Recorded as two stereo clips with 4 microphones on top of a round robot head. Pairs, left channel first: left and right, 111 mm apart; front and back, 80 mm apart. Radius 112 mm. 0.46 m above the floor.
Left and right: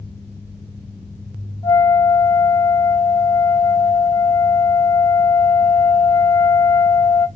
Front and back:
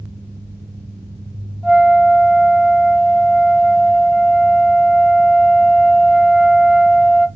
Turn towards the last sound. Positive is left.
turn(degrees=110)